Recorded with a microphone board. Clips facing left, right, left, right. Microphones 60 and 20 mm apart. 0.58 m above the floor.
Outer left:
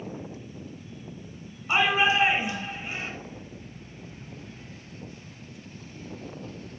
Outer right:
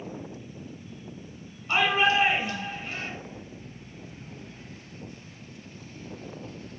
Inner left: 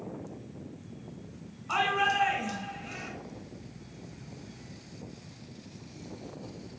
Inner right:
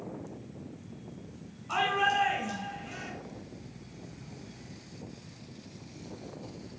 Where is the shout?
15° left (ahead or behind), 3 m.